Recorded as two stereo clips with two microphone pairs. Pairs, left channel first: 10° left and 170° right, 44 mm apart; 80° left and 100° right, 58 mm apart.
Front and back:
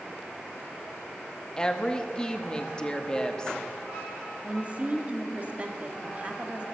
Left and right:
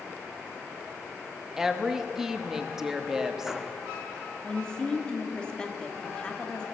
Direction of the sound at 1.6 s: 25° right.